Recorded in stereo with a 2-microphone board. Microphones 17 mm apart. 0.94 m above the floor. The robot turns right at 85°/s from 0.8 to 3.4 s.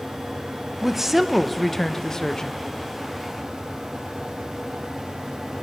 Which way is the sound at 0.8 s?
55° right.